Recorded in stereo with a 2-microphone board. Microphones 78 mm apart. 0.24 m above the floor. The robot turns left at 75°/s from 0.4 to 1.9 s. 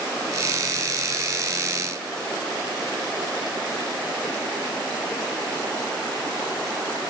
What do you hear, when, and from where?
Only background noise.